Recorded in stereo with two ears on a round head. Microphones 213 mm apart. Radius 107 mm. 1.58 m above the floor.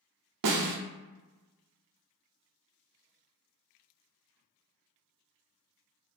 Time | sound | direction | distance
0.4 | a snare drum | 85° right | 0.6 m